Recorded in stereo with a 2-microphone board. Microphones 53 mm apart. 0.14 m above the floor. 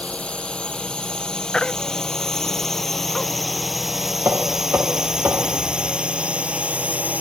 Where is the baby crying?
10° left (ahead or behind).